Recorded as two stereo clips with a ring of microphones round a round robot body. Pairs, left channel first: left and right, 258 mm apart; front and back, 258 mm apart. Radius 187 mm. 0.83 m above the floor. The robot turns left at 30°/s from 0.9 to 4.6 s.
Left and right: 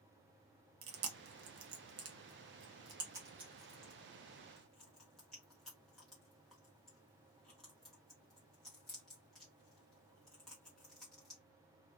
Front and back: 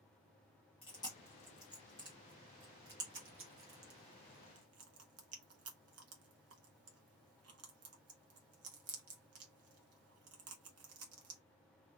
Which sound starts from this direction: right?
Chewing, at 0.8 s.